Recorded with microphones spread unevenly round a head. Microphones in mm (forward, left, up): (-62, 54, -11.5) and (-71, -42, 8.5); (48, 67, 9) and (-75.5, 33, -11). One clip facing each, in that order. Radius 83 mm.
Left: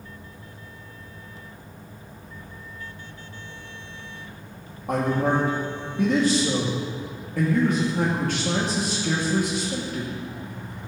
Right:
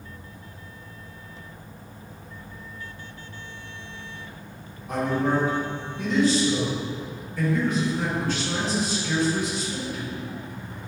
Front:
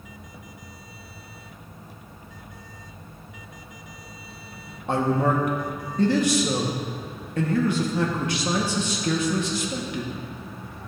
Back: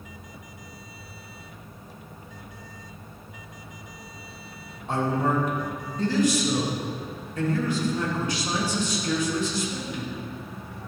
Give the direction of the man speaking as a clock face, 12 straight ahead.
11 o'clock.